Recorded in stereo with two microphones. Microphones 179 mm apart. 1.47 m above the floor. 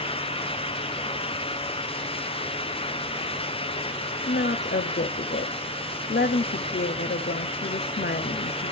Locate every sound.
4.3 s a woman speaking: 70° left (ahead or behind), 0.6 m